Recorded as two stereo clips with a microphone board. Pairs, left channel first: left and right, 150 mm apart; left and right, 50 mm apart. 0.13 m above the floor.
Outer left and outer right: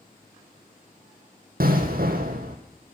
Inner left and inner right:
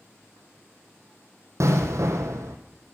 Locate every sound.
1.6 s an explosion: 80° right, 1.5 m